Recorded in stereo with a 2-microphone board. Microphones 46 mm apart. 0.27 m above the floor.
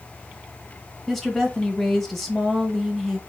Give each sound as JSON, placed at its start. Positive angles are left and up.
{"t": 1.1, "sound": "a woman speaking", "side_deg": 5, "distance_m": 1.1}